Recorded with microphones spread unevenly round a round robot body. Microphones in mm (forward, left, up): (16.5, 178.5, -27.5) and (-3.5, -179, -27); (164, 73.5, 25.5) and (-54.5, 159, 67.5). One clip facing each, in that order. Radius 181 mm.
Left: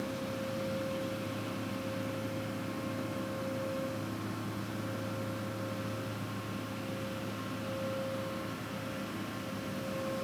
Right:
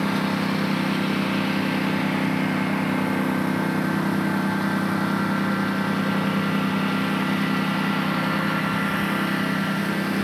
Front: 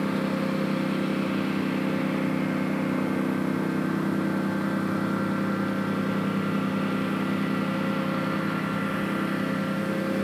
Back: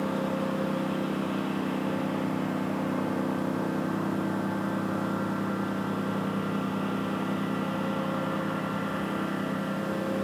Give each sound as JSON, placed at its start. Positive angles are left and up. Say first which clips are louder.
{"t": 0.0, "sound": "a lawn mower", "louder": "right 13 dB, front 3 dB", "azimuth_deg": -95}